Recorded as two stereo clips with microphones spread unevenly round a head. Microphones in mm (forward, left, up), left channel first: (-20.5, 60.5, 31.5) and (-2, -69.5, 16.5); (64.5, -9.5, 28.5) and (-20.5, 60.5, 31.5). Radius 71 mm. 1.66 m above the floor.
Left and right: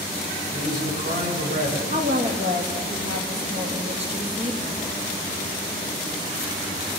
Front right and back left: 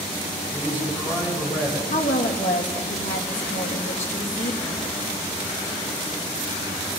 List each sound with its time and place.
0.5 s a man speaking: 105° right, 8 m
1.9 s a woman speaking: 35° right, 3 m